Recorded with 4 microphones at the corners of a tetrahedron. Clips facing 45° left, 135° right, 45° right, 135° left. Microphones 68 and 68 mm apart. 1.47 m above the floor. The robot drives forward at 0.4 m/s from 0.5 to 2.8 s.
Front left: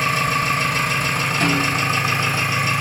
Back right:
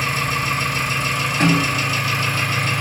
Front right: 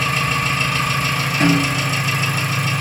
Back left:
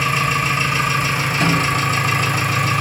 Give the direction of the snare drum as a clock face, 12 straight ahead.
3 o'clock.